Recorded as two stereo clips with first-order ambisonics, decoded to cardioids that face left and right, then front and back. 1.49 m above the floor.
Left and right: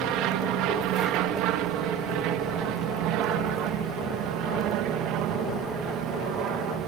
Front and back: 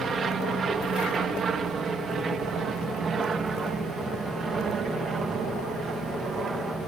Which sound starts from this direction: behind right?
An aircraft, at 0.0 s.